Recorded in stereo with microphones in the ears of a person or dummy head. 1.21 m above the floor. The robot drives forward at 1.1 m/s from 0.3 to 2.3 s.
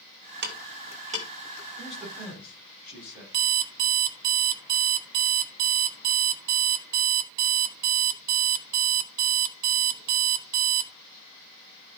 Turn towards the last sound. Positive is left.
turn(degrees=-50)  # may be behind; listen again after turning